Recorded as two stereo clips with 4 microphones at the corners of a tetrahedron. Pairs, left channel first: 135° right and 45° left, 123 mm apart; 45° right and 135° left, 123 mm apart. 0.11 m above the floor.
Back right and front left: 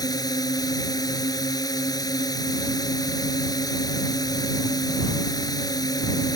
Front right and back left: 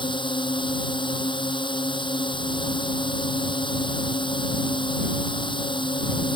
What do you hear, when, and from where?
0.0 s a drone: 85° right